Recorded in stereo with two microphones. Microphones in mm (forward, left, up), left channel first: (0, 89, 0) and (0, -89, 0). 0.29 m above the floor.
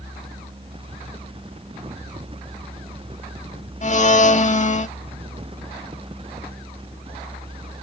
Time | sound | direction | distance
3.8 | a blender | 45° left (ahead or behind) | 0.8 m